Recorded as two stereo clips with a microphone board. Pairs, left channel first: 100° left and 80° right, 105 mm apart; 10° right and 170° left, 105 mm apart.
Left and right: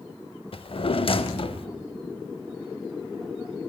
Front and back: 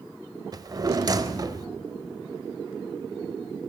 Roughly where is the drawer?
Behind left.